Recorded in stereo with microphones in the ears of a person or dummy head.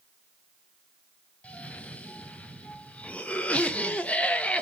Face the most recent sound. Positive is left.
turn(degrees=5)  # may be behind; listen again after turning